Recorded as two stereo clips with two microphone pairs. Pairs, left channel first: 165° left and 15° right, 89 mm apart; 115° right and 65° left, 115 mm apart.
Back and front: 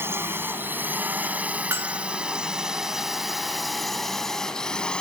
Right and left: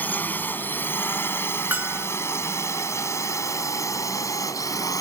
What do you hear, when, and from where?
0.0 s a drone: 50° right; by 5.0 s 130° right
1.7 s a bell: 10° left